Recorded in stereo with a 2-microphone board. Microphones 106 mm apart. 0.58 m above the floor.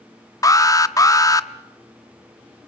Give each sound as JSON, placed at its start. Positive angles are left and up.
{"t": 0.4, "sound": "an alarm", "side_deg": 30, "distance_m": 0.7}